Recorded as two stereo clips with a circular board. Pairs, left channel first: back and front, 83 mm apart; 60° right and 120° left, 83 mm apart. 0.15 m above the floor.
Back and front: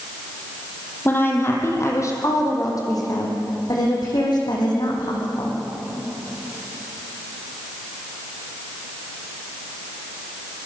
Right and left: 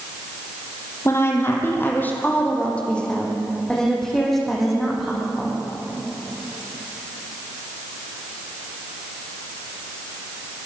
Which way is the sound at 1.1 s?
115° right.